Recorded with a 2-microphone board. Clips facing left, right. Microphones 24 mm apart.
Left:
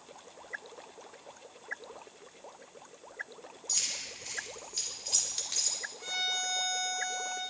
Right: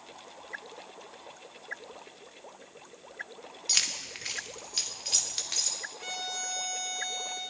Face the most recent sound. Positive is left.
turn(degrees=-15)  # may be behind; listen again after turning